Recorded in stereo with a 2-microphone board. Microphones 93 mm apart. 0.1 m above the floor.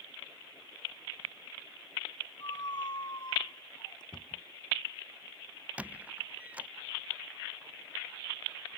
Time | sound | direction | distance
2.4 | a squeak | 50° left (ahead or behind) | ?
4.1 | a cupboard door | 5° left (ahead or behind) | ?
5.8 | a squeak | 15° right (ahead or behind) | ?